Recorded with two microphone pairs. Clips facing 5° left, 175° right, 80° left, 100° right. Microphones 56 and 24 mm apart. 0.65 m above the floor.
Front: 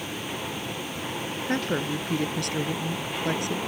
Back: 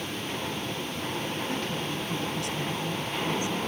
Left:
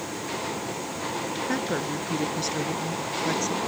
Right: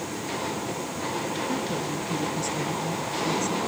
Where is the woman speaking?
35° left; by 3.6 s 30° left.